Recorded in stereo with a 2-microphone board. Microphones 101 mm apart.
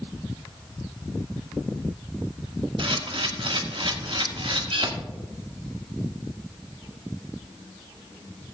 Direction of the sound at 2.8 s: 65° right (ahead or behind).